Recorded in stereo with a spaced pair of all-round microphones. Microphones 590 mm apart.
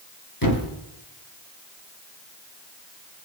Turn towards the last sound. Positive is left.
turn(degrees=35)  # may be behind; listen again after turning